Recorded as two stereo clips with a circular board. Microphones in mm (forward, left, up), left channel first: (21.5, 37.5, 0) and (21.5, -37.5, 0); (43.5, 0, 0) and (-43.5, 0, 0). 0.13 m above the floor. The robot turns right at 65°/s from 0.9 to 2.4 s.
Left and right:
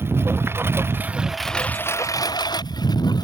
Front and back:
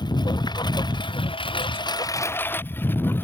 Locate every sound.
0.0 s a lawn mower: 30° right; by 3.2 s 65° left